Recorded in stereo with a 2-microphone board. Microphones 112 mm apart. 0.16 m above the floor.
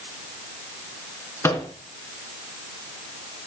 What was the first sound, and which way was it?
A microwave, 25° left (ahead or behind).